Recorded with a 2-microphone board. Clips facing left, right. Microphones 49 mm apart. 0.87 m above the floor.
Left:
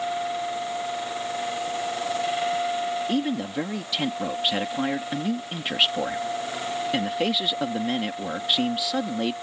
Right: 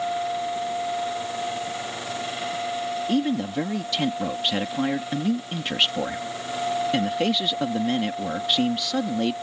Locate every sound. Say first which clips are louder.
3.1 s a man speaking: right 2 dB; 5° left (ahead or behind)